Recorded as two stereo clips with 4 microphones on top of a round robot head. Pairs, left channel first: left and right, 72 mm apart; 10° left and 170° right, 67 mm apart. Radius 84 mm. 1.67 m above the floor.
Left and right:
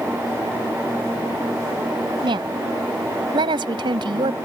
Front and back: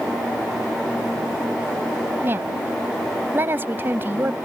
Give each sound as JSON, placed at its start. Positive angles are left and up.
{"t": 2.2, "sound": "a woman speaking", "azimuth_deg": -110}